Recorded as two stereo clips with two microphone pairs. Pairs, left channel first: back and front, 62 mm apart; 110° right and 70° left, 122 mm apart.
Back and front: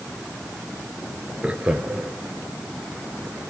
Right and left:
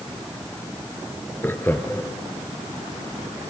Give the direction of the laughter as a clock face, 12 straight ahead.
2 o'clock.